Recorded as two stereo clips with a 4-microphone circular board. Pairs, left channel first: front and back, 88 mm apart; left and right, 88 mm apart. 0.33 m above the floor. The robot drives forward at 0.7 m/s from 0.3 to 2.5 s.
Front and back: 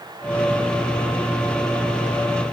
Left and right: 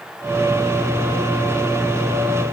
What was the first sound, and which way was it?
Only background noise.